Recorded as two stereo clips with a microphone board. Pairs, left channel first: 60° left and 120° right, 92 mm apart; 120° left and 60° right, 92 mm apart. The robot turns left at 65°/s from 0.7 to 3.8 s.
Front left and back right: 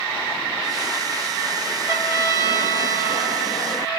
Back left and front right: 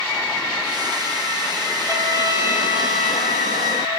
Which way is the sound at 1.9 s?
65° right.